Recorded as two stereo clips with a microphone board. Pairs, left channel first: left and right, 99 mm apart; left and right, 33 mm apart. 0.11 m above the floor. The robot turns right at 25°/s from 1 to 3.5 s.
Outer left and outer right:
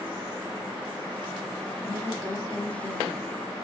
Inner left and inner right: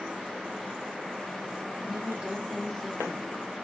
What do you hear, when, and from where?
1.8 s a woman speaking: 70° right, 1.4 m; by 3.2 s 35° right, 1.4 m